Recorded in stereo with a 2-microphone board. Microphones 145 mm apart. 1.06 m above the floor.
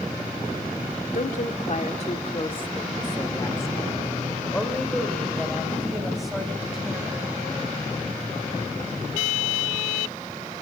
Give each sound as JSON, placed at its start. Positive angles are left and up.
{"t": 1.1, "sound": "a woman speaking", "side_deg": 65, "distance_m": 2.5}